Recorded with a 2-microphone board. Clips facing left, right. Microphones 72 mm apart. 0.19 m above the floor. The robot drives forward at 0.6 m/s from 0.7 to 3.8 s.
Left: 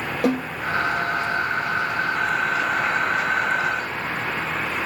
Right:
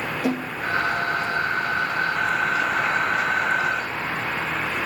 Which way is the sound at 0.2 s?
80° left.